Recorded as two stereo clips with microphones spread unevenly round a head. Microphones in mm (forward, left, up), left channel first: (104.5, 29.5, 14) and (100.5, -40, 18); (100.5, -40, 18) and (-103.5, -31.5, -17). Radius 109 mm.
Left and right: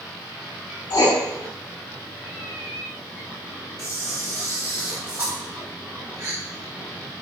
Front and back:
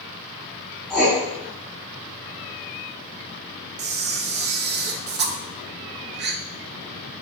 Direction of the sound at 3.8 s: 160° right.